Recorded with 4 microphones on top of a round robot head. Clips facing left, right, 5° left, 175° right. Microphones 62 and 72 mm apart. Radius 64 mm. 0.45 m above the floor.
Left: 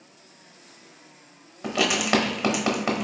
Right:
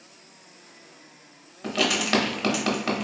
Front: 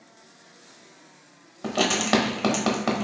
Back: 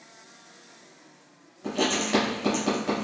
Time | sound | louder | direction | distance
1.6 | writing | left 1 dB, front 3 dB | 15° left | 0.8 m